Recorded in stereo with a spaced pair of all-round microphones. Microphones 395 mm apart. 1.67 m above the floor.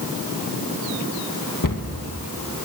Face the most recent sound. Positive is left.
turn(degrees=50)  # may be behind; listen again after turning